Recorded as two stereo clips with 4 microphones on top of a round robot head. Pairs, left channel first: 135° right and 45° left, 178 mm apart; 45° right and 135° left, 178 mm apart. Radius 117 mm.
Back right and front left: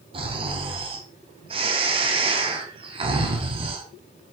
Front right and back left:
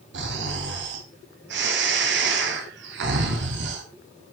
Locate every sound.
0.1 s snoring: 105° left, 2.5 m